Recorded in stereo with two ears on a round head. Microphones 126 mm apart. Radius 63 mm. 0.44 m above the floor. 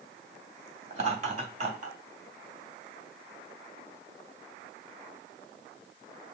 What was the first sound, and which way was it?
Laughter, 50° right (ahead or behind).